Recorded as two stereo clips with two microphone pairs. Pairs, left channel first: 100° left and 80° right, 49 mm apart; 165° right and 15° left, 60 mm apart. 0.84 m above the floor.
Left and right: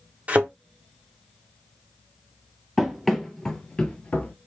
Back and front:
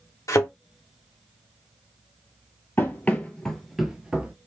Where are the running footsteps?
165° right, 0.9 m; by 4.3 s 60° left, 0.9 m.